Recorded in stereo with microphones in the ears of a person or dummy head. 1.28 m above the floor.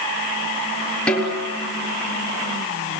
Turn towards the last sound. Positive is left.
turn(degrees=5)  # may be behind; listen again after turning